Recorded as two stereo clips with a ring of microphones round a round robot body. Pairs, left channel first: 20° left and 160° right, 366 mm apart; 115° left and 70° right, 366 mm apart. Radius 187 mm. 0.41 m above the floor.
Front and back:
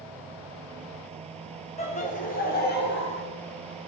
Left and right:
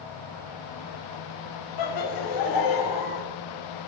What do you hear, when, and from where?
1.8 s laughter: 95° left, 3 m; by 3.2 s 80° left, 3 m